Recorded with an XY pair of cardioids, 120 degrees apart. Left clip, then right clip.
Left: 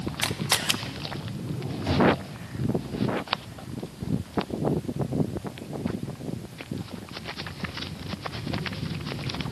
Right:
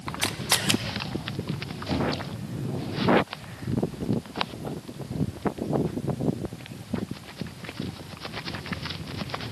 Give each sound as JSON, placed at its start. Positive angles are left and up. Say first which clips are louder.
{"t": 0.2, "sound": "a camera shutter", "louder": "even", "azimuth_deg": -5, "distance_m": 0.6}
{"t": 1.9, "sound": "knocking", "louder": "left 7 dB", "azimuth_deg": 65, "distance_m": 8.5}